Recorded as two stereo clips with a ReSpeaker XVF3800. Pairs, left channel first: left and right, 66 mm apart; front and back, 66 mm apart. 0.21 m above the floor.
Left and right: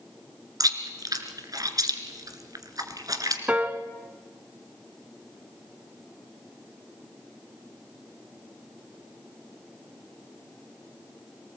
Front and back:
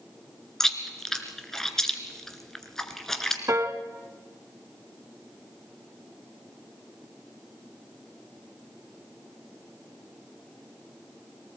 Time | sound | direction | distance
0.6 | chewing | 85° right | 1.9 m
3.5 | a piano | 155° right | 1.1 m